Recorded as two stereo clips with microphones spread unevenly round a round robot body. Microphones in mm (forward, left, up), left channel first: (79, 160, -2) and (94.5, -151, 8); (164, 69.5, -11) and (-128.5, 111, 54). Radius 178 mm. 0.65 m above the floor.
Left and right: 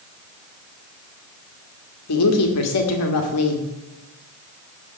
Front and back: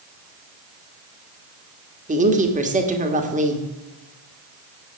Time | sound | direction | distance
2.1 | a woman speaking | 100° left | 1.6 m